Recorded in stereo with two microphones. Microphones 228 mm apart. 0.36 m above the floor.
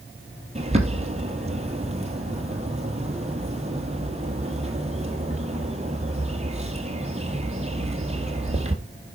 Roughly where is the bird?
Right.